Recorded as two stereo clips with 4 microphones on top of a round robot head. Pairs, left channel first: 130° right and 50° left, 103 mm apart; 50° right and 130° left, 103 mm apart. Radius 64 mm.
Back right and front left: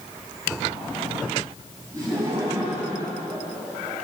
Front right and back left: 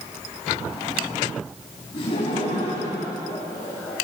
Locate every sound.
1.9 s laughter: 10° right, 4.5 m; by 4.1 s 30° right, 5 m